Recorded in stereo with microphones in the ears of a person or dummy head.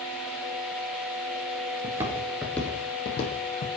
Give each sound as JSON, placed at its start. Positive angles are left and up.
{"t": 1.8, "sound": "footsteps", "side_deg": -30, "distance_m": 1.5}